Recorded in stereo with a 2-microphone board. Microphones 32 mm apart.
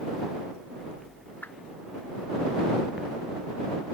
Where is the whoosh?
70° left (ahead or behind).